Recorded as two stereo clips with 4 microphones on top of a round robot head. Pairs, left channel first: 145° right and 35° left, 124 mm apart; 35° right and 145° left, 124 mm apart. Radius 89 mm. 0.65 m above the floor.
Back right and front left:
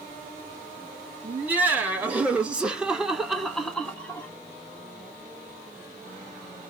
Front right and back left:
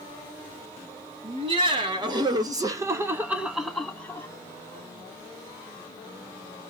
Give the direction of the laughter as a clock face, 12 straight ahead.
8 o'clock.